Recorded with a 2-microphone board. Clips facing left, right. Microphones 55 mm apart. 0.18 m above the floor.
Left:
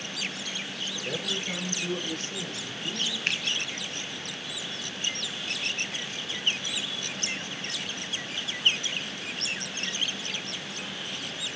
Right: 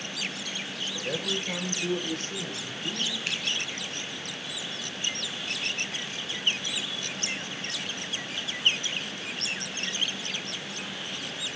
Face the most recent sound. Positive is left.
turn(degrees=50)  # may be behind; listen again after turning